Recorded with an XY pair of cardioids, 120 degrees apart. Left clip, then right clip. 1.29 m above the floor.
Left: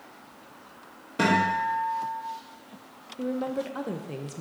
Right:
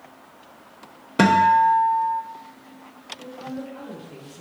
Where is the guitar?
55° right, 1.2 m.